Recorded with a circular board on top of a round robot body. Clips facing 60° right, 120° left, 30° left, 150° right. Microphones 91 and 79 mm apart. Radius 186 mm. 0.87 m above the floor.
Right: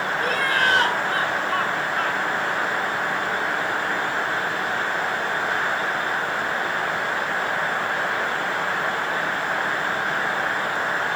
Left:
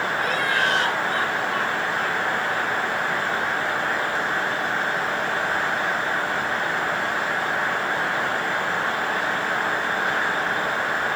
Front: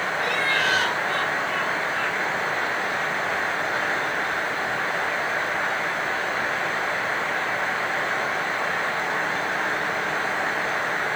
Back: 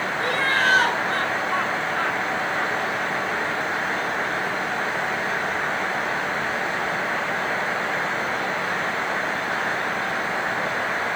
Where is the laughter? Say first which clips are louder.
Right 2 dB, back 3 dB; 100° right, 6.5 m; by 2.8 s 90° right, 5.5 m.